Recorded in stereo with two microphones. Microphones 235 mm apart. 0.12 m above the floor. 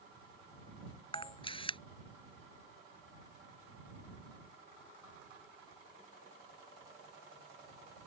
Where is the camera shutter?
20° left (ahead or behind).